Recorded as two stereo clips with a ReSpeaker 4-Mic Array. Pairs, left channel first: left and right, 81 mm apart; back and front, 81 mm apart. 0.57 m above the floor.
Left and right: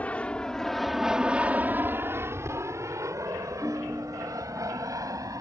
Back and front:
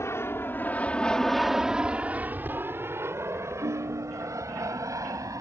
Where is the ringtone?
Straight ahead.